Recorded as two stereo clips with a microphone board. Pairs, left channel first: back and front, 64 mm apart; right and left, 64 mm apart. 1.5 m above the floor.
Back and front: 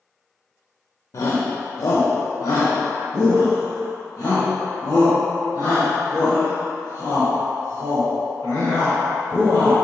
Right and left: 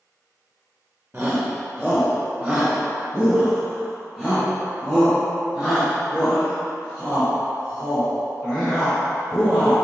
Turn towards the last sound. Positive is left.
turn(degrees=-165)